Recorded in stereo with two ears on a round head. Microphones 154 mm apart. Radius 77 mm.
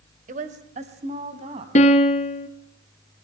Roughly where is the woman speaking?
Right.